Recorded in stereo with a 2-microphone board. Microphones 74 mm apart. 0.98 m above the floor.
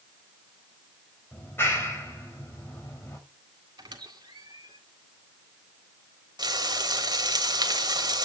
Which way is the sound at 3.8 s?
85° right.